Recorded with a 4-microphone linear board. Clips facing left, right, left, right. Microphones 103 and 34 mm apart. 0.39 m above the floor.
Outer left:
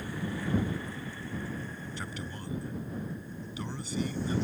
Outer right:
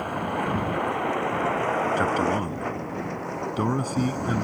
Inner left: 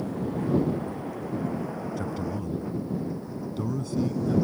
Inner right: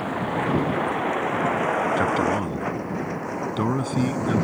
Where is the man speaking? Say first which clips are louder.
Outer right 18 dB, inner right 10 dB; 60° right (ahead or behind).